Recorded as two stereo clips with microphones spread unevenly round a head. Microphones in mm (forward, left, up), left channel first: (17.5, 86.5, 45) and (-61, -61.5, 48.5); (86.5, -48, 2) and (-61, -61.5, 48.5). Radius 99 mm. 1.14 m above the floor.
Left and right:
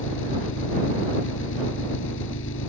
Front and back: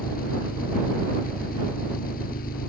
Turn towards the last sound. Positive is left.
turn(degrees=50)